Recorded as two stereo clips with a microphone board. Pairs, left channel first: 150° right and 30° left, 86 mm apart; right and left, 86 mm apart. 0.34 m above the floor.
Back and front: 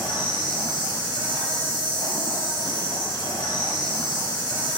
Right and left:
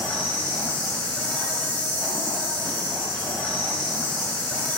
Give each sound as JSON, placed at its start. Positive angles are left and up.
{"t": 0.0, "sound": "an insect", "azimuth_deg": -155, "distance_m": 1.8}